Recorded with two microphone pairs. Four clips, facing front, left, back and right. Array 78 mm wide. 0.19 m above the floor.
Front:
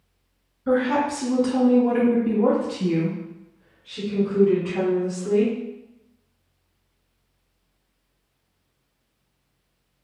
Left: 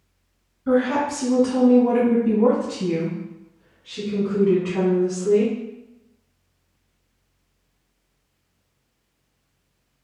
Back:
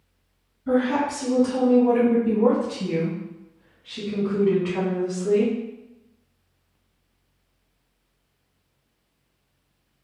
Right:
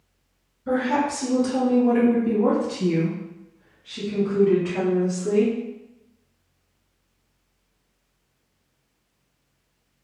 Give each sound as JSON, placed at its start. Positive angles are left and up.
{"t": 0.7, "sound": "a woman speaking", "azimuth_deg": 25, "distance_m": 1.6}